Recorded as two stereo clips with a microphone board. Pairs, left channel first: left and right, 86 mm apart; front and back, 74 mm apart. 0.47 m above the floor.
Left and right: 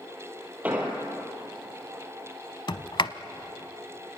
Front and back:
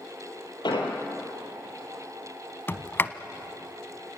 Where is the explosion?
15° right, 3.5 m.